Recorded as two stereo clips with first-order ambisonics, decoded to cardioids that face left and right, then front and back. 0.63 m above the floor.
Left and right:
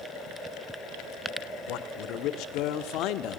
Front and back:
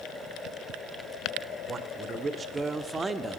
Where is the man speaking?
110° left, 1.7 m; by 3.4 s 100° left, 0.9 m.